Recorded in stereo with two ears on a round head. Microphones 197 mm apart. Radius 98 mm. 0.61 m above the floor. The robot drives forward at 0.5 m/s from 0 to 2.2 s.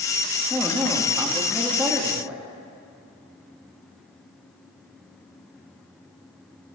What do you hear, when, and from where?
0.5 s a man speaking: 10° right (ahead or behind), 1.1 m; by 2.4 s 5° right (ahead or behind), 1.1 m